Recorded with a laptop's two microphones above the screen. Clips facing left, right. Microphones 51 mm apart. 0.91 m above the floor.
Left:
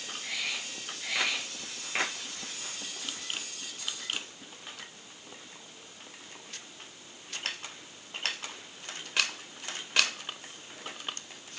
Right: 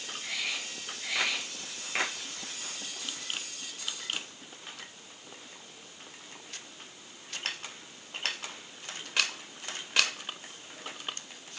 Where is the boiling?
No boiling in this recording.